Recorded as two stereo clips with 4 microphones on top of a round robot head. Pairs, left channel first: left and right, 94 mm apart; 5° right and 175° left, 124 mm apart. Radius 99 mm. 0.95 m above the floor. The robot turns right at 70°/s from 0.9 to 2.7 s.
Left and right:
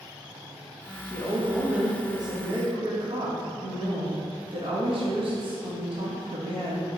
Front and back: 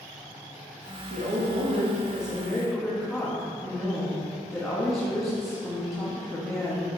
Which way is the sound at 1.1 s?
155° left.